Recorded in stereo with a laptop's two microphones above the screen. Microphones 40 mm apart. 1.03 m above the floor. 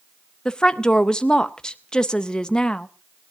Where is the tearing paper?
No tearing paper in this recording.